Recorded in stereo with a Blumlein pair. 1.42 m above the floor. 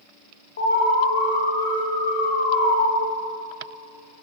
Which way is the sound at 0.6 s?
70° left.